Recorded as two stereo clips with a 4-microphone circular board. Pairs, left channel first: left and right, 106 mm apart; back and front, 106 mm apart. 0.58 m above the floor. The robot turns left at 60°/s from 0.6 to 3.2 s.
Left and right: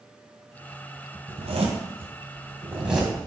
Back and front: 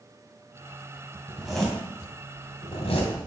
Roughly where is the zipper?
Right.